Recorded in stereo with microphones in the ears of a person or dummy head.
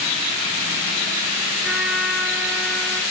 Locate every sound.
1.6 s a trumpet: 5° right (ahead or behind), 4 m